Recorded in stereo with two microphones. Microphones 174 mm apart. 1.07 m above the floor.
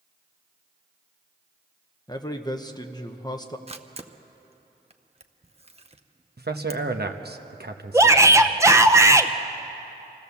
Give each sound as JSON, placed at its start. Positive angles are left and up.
{"t": 2.1, "sound": "a man speaking", "side_deg": 25, "distance_m": 1.0}
{"t": 3.7, "sound": "a camera shutter", "side_deg": -35, "distance_m": 0.7}
{"t": 6.4, "sound": "a man speaking", "side_deg": -65, "distance_m": 1.1}
{"t": 7.9, "sound": "a shout", "side_deg": -15, "distance_m": 0.7}